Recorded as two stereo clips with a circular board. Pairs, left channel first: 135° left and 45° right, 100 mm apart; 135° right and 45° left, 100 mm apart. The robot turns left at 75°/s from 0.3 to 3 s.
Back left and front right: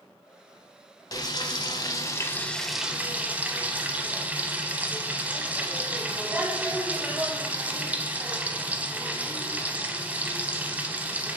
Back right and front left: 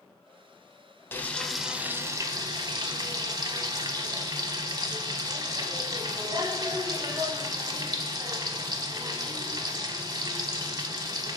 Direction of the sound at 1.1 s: 165° left.